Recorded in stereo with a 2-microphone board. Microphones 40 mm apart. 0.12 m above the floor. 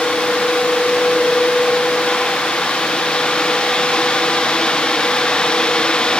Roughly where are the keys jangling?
No keys jangling in this recording.